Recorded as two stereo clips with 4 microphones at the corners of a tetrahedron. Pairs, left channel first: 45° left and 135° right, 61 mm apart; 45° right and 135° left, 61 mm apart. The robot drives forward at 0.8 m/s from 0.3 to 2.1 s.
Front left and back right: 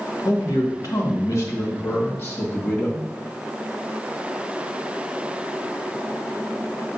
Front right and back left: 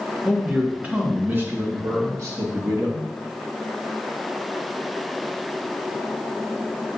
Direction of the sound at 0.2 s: 55° left.